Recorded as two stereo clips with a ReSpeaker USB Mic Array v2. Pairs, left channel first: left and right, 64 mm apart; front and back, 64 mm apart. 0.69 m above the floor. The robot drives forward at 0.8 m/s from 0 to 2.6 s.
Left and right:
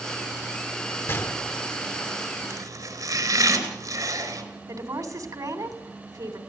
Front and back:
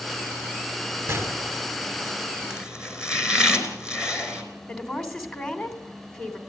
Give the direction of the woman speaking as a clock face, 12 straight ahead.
3 o'clock.